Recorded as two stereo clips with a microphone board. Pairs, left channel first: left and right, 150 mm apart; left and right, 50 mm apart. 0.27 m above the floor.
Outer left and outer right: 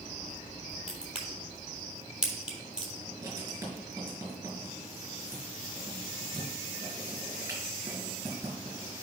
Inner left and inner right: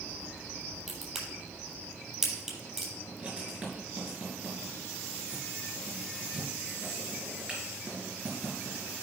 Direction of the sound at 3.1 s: 20° right (ahead or behind).